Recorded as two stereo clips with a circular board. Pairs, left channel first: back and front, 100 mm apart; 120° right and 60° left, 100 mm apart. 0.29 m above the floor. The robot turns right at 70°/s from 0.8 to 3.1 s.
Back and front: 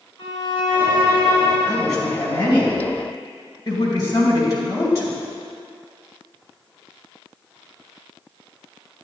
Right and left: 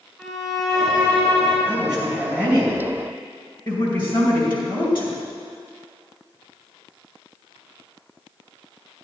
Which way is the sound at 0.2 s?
145° left.